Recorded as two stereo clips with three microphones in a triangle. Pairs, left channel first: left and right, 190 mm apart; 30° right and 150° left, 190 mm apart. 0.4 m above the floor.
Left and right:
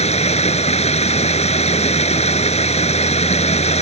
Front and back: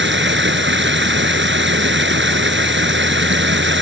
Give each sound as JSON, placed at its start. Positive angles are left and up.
{"t": 0.0, "sound": "running water", "azimuth_deg": 145}